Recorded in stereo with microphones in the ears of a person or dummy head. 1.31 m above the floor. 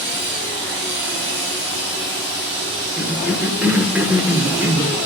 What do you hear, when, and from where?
0.0 s a machine running: 65° right (ahead or behind), 5 m
3.0 s a cough: 10° right (ahead or behind), 1.0 m